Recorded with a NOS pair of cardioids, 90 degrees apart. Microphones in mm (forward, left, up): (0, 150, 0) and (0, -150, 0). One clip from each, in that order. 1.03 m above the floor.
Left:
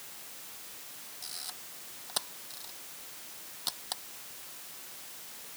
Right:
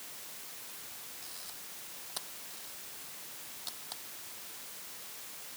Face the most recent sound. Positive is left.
turn(degrees=60)